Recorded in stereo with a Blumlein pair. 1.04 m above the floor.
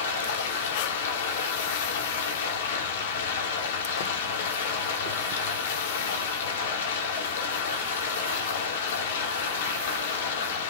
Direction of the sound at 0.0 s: 60° left.